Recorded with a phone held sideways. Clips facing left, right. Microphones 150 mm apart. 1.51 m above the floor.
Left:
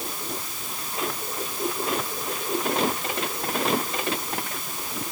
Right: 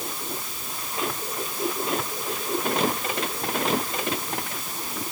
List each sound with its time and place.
Only background noise.